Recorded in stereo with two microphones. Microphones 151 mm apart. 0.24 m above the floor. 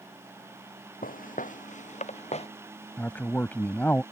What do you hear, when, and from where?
1.0 s footsteps: 65° left (ahead or behind); by 2.5 s 45° left (ahead or behind)
3.0 s a man speaking: 10° left (ahead or behind)